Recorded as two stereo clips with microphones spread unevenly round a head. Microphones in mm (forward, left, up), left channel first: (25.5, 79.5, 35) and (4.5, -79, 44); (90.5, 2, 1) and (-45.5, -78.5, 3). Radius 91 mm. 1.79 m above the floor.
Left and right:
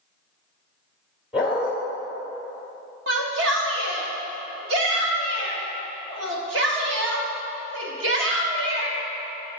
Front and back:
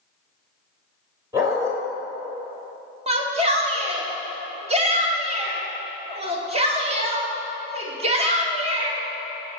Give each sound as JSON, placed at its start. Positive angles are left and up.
{"t": 1.3, "sound": "a dog barking", "azimuth_deg": -160, "distance_m": 1.5}
{"t": 3.1, "sound": "a shout", "azimuth_deg": -100, "distance_m": 1.2}